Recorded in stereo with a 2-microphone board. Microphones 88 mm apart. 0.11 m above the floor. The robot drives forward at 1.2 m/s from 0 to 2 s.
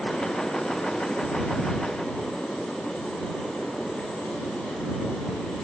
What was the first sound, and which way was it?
Only background noise.